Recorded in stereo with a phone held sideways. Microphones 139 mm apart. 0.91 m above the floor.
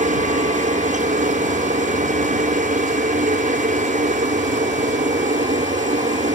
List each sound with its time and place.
0.0 s a helicopter: 65° right (ahead or behind)